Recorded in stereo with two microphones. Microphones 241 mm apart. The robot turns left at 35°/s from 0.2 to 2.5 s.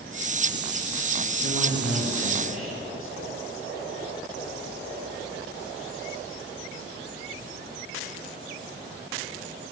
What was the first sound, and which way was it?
A man speaking, 105° left.